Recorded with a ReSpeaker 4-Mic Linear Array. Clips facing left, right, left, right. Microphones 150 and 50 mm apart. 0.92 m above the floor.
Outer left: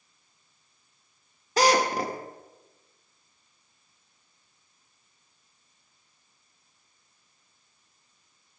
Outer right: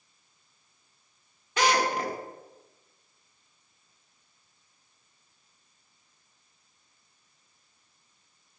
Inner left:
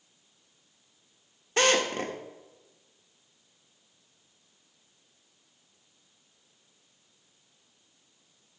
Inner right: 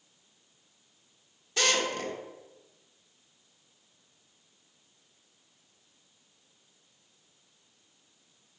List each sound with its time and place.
1.6 s a drill: 40° left (ahead or behind), 1.2 m